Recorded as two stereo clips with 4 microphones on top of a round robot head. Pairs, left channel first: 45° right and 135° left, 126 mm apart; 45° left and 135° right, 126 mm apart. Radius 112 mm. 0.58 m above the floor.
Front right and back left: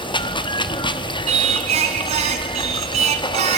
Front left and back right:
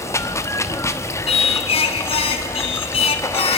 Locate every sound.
0.0 s running water: 15° right, 1.1 m
1.3 s singing: 90° left, 1.1 m